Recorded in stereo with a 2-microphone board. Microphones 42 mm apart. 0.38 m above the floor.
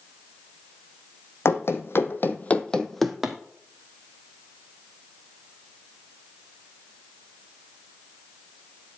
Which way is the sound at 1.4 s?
80° left.